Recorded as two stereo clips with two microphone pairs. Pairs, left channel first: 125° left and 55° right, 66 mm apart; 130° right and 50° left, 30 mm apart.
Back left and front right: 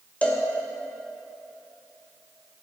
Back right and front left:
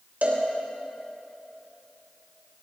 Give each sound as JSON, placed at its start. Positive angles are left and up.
{"t": 0.2, "sound": "a cowbell", "azimuth_deg": 60, "distance_m": 2.5}